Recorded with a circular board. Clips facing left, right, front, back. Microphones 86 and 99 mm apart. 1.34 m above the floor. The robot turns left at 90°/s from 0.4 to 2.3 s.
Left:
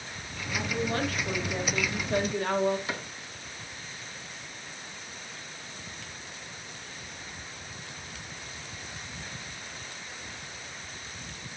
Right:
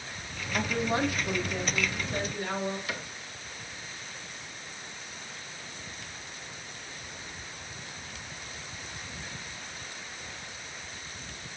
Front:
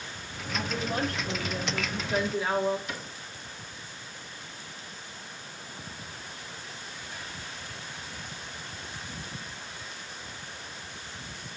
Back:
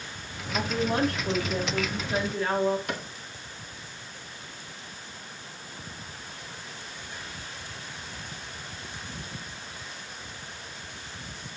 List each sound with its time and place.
0.5 s a woman speaking: 120° right, 2.5 m; by 2.8 s 80° left, 2.5 m
2.9 s a cupboard door: 150° left, 1.7 m